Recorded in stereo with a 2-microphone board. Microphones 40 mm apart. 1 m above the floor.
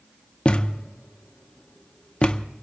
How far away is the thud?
About 0.6 m.